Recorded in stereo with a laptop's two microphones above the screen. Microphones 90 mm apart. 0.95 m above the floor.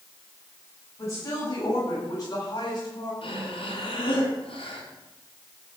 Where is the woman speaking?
35° left (ahead or behind), 6.5 m; by 3.1 s 50° left (ahead or behind), 7 m.